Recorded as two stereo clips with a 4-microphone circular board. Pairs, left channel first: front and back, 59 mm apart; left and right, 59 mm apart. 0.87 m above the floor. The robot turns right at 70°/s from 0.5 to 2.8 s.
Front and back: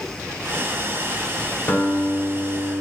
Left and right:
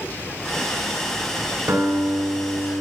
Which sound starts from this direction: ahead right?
A guitar, at 1.7 s.